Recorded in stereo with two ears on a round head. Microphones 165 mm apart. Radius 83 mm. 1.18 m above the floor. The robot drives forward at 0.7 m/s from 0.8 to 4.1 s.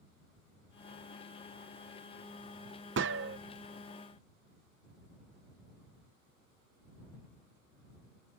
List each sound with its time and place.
3.0 s a gunshot: 70° right (ahead or behind); by 3.4 s 60° right (ahead or behind)